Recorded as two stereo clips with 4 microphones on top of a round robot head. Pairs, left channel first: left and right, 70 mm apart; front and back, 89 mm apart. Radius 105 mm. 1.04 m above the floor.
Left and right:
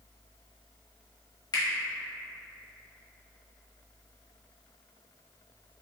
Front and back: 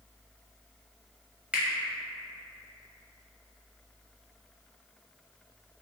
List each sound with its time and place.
1.5 s a finger snap: 100° left, 1.2 m